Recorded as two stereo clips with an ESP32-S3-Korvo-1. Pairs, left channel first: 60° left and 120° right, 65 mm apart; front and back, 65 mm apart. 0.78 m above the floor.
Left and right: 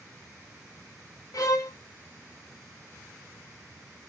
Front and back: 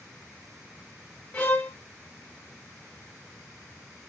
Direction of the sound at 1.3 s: 60° left.